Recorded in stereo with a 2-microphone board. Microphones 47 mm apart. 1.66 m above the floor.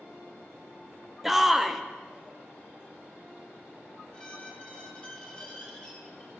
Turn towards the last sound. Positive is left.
turn(degrees=20)  # may be behind; listen again after turning